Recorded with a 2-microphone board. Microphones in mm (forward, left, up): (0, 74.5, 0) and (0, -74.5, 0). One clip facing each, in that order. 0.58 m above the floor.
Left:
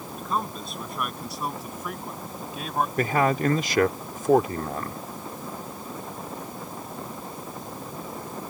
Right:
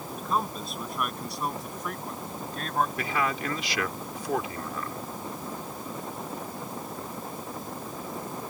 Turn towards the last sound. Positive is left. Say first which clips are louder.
# left 7 dB
turn(degrees=50)  # may be behind; listen again after turning